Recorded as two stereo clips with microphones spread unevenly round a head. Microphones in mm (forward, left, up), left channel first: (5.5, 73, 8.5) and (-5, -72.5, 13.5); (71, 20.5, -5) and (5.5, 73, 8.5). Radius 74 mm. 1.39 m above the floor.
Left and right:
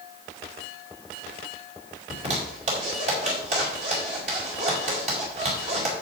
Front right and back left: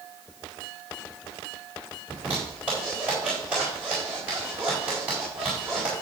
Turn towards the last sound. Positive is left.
turn(degrees=-135)